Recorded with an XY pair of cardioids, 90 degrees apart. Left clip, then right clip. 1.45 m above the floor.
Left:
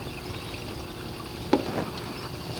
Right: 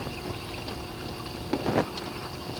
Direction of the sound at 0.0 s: Straight ahead.